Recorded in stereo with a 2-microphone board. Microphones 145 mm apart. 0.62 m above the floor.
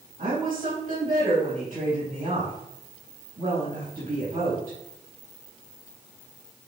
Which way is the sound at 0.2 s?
65° right (ahead or behind).